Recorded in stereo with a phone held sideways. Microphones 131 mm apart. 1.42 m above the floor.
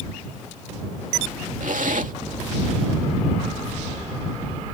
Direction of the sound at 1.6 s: 80° right.